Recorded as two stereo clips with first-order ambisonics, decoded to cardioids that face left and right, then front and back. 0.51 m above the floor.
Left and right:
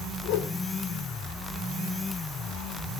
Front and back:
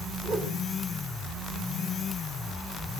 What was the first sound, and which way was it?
A whoosh, 125° left.